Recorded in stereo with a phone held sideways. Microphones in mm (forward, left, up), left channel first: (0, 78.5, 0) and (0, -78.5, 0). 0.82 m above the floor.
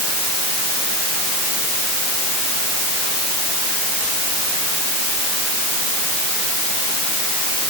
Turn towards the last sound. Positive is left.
No sound to turn to.